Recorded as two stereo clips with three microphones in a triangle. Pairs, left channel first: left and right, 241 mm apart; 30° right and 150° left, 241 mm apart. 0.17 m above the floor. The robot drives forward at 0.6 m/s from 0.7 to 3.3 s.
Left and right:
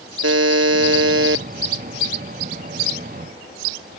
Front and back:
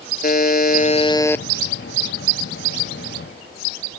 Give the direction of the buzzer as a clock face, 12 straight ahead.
3 o'clock.